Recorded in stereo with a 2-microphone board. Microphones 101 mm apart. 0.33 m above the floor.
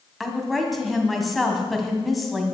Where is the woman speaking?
Centre (ahead or behind), 2.5 m.